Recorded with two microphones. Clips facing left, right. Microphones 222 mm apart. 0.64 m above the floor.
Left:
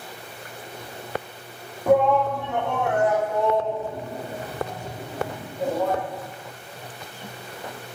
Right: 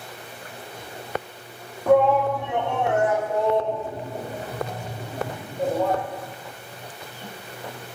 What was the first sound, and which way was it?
A shout, 5° left (ahead or behind).